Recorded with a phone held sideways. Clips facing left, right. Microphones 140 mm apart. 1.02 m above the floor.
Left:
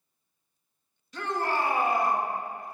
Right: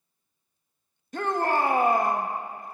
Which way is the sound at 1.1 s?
50° right (ahead or behind).